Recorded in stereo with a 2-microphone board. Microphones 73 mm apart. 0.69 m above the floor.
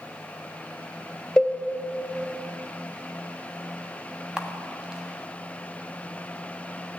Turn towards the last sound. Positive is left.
turn(degrees=-10)  # may be behind; listen again after turning